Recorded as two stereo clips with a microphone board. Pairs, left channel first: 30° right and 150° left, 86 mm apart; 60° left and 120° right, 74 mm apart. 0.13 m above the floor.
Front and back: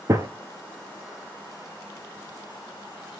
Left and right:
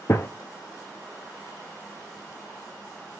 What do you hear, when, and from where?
0.1 s a gunshot: 105° left, 0.5 m